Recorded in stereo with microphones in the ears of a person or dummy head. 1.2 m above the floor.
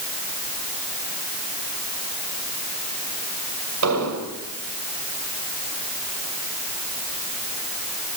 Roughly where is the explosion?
Right.